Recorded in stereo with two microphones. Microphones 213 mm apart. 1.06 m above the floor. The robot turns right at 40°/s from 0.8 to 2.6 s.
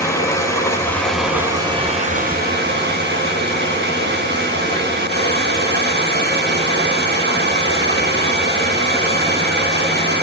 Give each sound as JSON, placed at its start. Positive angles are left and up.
{"t": 0.0, "sound": "running water", "azimuth_deg": 165, "distance_m": 2.5}